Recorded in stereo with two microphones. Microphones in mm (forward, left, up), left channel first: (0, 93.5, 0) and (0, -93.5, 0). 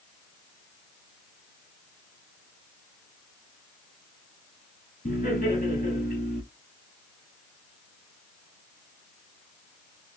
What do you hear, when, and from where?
5.0 s laughter: 45° left (ahead or behind), 1.6 m